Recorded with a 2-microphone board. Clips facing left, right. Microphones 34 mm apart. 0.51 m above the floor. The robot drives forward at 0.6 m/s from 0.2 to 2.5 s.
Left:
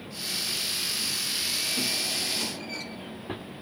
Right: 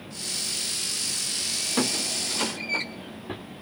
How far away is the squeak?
About 0.8 m.